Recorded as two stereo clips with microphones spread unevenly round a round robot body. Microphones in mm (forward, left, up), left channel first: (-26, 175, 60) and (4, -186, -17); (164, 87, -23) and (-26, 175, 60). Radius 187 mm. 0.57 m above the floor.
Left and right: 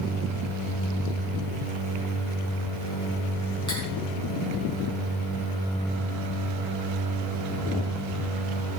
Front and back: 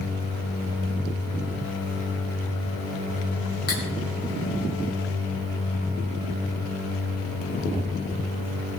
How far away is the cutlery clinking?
About 4.5 m.